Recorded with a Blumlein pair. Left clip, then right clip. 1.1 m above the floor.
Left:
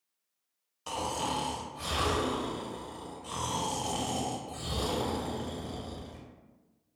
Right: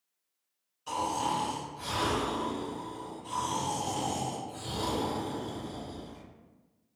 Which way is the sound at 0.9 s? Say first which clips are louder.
Right 2 dB; 40° left.